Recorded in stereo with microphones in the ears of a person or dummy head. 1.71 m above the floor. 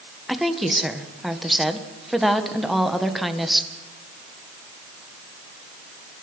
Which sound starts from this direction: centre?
A woman speaking, at 0.3 s.